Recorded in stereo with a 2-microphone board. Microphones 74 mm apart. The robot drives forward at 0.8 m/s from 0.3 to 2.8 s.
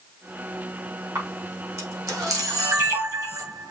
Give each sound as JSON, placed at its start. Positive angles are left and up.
{"t": 1.1, "sound": "a camera shutter", "side_deg": -40, "distance_m": 5.0}